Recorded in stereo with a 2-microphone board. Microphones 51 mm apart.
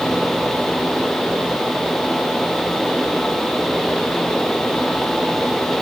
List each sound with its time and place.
Only background noise.